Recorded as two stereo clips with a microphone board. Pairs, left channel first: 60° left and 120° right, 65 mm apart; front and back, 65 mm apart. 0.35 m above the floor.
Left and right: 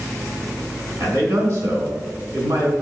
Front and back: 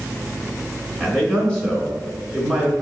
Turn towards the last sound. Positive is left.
turn(degrees=-75)